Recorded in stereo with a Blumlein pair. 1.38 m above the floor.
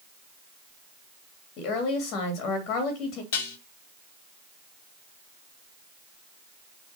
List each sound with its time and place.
1.6 s a woman speaking: 40° left, 2.5 m
3.3 s dishes clattering: 55° left, 1.8 m